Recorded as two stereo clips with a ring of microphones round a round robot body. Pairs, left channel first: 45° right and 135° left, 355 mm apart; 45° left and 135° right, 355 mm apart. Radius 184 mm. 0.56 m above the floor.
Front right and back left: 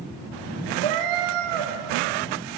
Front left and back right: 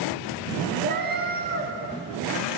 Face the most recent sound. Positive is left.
turn(degrees=160)